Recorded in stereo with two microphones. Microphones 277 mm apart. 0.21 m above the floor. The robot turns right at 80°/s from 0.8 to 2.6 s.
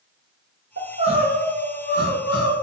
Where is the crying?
50° right, 1.2 m; by 2.5 s 90° left, 1.2 m.